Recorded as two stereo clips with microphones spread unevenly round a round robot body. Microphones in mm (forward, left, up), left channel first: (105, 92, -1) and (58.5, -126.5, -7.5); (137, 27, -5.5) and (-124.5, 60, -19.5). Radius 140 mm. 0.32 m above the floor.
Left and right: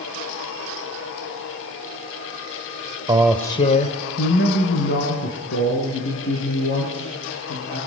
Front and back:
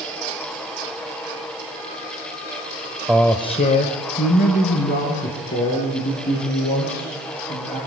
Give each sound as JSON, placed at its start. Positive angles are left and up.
{"t": 3.1, "sound": "a man speaking", "azimuth_deg": -110, "distance_m": 0.9}